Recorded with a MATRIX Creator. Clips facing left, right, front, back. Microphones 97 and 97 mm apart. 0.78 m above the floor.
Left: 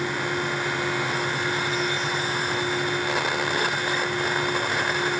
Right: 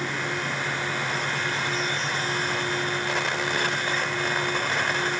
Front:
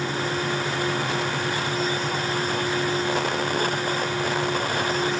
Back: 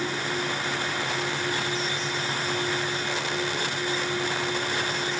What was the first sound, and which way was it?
Only background noise.